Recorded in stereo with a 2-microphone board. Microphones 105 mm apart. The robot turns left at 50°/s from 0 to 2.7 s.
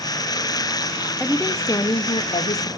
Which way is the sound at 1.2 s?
175° left.